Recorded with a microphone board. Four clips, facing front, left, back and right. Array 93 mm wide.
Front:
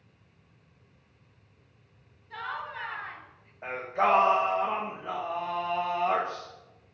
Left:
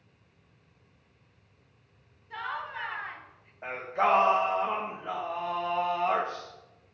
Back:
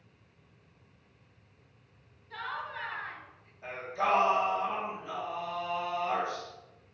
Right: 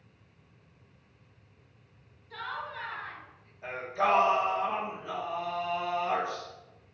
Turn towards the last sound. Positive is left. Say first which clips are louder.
# left 2 dB, front 5 dB
turn(degrees=45)